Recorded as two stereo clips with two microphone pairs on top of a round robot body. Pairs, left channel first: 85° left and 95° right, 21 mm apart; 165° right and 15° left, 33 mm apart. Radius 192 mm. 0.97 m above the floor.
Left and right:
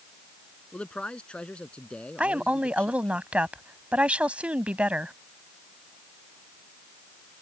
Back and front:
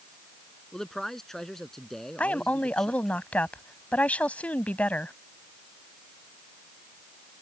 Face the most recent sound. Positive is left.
turn(degrees=-115)